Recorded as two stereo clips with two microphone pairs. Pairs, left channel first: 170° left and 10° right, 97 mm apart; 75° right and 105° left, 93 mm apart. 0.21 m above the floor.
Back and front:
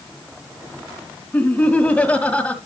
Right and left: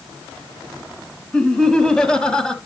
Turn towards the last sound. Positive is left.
turn(degrees=-140)